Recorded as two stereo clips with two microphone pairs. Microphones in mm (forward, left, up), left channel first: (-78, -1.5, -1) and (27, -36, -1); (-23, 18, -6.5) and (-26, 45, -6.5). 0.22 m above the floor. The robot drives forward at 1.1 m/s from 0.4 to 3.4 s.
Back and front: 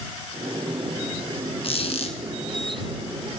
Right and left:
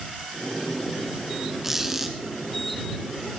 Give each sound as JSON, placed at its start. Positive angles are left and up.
{"t": 1.6, "sound": "a squeak", "azimuth_deg": 170, "distance_m": 1.8}